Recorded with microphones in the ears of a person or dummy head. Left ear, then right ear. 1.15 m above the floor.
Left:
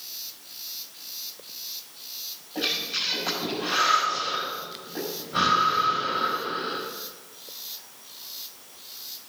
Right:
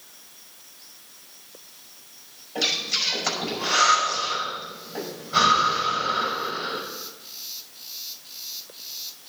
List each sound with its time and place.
2.5 s breathing: 80° right, 6.5 m